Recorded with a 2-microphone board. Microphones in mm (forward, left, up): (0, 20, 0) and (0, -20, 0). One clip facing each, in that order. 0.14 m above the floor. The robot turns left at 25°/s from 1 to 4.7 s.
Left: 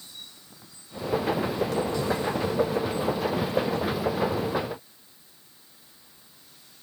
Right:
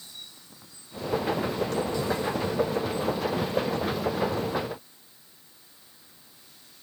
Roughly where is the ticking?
I don't hear ticking.